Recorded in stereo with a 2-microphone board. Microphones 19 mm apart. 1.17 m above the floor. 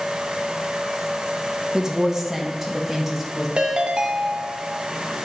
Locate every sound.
1.7 s a woman speaking: 30° right (ahead or behind), 1.1 m; by 3.5 s 5° right (ahead or behind), 2.5 m
3.6 s a ringtone: 65° right (ahead or behind), 0.9 m